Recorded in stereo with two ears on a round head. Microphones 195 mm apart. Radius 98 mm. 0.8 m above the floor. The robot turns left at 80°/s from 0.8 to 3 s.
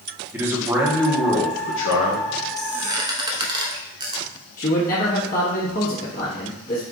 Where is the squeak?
Centre (ahead or behind), 0.9 m; by 4.2 s 20° right (ahead or behind), 0.9 m.